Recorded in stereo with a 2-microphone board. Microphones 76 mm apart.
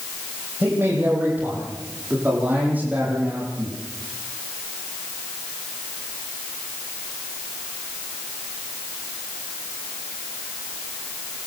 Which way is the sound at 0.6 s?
25° right (ahead or behind).